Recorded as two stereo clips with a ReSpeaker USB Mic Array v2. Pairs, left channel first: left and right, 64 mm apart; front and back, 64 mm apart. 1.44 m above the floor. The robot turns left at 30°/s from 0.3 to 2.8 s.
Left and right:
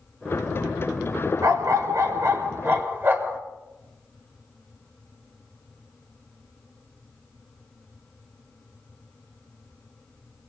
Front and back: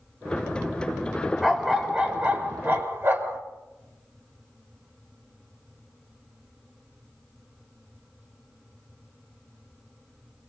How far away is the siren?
No siren in this recording.